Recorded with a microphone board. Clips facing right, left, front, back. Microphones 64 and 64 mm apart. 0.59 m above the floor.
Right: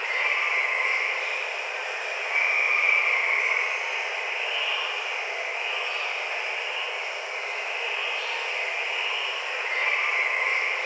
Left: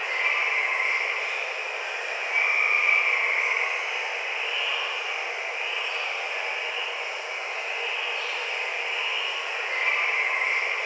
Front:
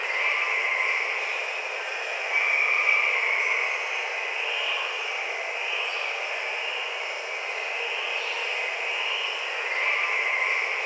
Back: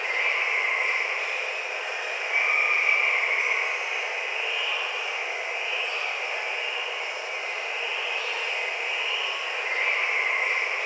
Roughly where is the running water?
Right.